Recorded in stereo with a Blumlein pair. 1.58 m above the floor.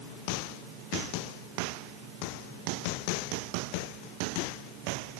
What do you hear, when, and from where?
Only background noise.